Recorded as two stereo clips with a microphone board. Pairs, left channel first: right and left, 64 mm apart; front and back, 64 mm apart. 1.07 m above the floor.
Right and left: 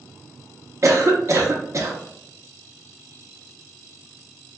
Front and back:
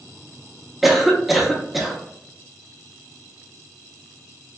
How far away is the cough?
About 0.6 m.